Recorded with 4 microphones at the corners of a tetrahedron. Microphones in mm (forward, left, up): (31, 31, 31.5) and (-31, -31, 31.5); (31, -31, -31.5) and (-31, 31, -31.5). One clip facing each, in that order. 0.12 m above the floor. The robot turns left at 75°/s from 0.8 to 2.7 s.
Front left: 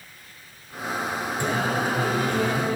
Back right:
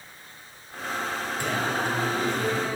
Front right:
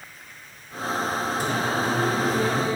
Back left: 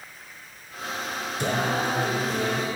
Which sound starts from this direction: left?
Singing, at 1.4 s.